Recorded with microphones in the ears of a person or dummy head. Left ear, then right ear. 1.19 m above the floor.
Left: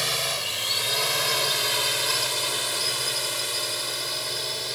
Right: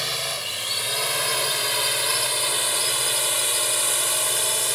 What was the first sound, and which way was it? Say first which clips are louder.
A drone: left 1 dB; centre (ahead or behind).